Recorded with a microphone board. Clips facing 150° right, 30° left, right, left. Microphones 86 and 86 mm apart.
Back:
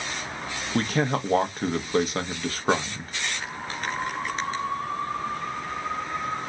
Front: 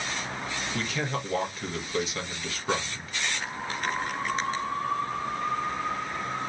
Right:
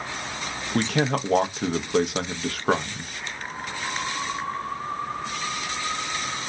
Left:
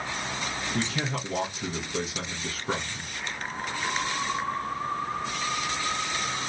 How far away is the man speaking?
About 0.7 m.